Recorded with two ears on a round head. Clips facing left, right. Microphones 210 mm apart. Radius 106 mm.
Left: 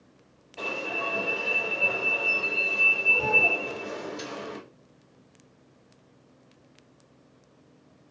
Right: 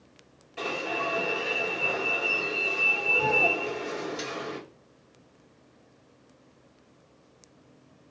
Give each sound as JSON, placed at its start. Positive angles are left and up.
{"t": 0.6, "sound": "an alarm", "side_deg": -20, "distance_m": 2.0}